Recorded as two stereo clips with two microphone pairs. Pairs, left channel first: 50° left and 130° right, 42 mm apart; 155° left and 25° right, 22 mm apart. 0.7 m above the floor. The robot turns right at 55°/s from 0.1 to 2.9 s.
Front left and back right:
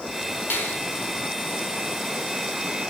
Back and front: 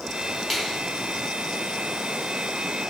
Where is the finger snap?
65° left, 3.5 m; by 0.8 s 80° left, 3.5 m.